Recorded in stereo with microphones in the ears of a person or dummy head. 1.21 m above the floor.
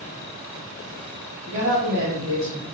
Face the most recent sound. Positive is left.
turn(degrees=-30)  # may be behind; listen again after turning